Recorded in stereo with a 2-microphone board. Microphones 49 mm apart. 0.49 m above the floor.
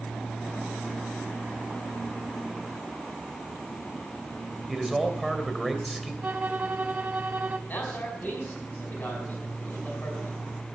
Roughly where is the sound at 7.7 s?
Left.